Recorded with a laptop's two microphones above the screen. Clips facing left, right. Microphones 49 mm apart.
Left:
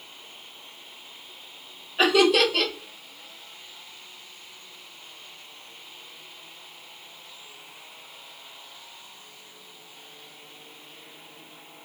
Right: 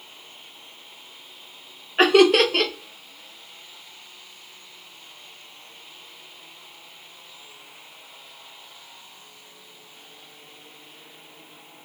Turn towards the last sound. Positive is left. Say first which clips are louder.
# right 4 dB
turn(degrees=-55)  # may be behind; listen again after turning